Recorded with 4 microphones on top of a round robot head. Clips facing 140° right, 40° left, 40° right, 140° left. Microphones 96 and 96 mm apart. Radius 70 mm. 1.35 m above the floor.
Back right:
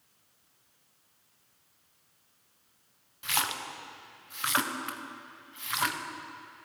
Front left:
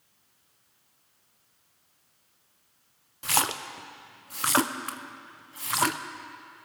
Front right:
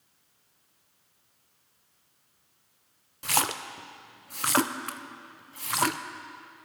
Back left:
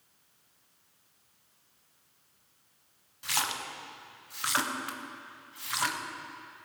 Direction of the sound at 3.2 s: 5° right.